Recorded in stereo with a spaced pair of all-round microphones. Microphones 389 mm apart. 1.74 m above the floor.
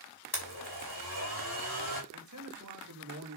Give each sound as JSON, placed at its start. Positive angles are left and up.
{"t": 0.3, "sound": "a blender", "side_deg": 70, "distance_m": 5.0}
{"t": 2.1, "sound": "a man speaking", "side_deg": -45, "distance_m": 3.0}